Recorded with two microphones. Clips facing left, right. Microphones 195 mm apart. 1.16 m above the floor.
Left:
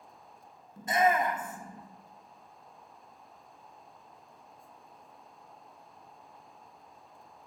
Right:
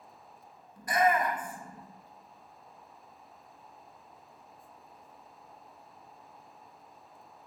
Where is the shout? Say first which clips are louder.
Even; 25° left (ahead or behind), 0.5 m.